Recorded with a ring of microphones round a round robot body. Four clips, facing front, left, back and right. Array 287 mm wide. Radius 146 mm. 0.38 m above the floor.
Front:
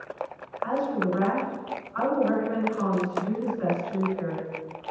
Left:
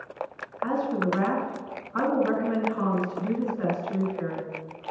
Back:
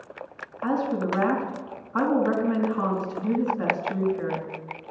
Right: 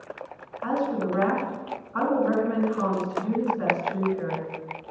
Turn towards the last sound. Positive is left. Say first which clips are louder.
# even, back 1 dB
turn(degrees=160)